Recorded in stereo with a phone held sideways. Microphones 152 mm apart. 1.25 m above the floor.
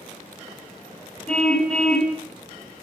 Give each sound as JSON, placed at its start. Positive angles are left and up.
{"t": 1.3, "sound": "a car horn", "side_deg": 5, "distance_m": 5.0}